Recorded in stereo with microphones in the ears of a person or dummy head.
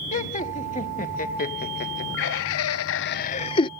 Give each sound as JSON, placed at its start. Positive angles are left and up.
{"t": 0.1, "sound": "laughter", "side_deg": 30}